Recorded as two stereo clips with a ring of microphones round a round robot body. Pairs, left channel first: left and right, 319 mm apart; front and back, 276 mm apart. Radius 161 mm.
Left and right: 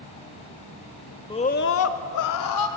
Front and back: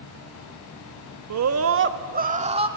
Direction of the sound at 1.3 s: 165° left.